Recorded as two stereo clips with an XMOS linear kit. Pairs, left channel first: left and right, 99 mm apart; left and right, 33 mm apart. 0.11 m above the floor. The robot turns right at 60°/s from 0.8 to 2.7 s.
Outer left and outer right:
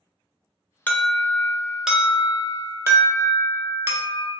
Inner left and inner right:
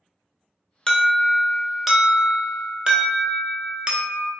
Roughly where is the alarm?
Centre.